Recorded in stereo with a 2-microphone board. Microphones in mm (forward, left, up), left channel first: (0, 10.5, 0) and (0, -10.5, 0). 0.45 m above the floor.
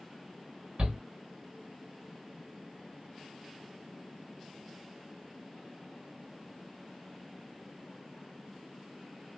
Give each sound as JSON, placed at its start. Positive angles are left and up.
{"t": 0.8, "sound": "a shout", "side_deg": -55, "distance_m": 1.9}